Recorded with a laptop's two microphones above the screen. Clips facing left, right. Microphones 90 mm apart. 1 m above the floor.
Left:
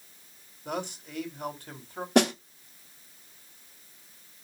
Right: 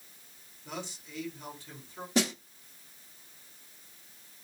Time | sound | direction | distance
0.7 | a man speaking | 55° left (ahead or behind) | 4 m
2.1 | a snare drum | 60° left (ahead or behind) | 1.0 m